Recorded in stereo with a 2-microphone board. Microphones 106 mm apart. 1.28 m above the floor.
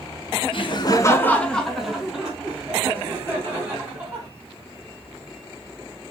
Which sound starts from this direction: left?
Laughter, at 0.5 s.